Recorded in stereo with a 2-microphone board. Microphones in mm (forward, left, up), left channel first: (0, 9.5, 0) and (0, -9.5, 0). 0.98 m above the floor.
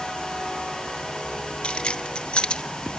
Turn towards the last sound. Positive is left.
turn(degrees=65)  # may be behind; listen again after turning